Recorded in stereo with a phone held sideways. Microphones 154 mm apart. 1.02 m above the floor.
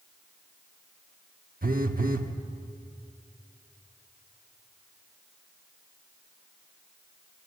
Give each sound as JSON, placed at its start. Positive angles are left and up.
{"t": 1.6, "sound": "a phone buzzing", "side_deg": -70, "distance_m": 1.2}